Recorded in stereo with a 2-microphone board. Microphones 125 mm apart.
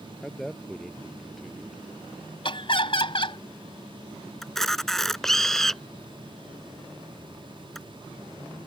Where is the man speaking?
Centre (ahead or behind).